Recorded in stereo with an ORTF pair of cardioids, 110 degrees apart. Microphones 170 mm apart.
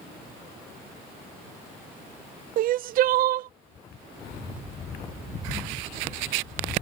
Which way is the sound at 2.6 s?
60° right.